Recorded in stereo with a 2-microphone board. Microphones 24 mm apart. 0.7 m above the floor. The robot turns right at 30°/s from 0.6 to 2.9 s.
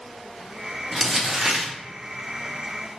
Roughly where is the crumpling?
Centre.